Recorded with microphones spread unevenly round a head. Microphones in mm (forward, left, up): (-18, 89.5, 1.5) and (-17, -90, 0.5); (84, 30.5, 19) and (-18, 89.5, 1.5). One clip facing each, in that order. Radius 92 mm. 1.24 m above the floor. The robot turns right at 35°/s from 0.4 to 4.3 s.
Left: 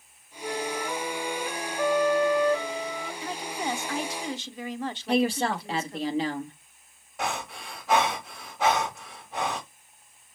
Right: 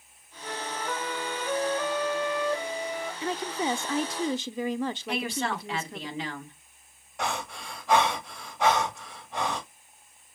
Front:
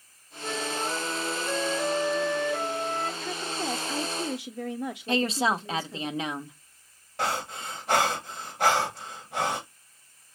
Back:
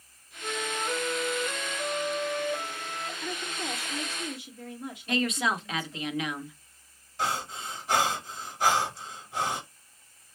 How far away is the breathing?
About 1.8 m.